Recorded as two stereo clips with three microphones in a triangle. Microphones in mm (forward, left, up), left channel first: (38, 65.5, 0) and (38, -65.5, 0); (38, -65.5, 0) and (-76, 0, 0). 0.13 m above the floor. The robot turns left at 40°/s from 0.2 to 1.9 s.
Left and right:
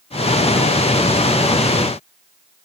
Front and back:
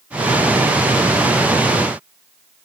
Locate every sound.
Only background noise.